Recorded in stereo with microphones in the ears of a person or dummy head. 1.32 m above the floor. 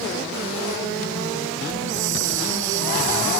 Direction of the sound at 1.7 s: 70° right (ahead or behind).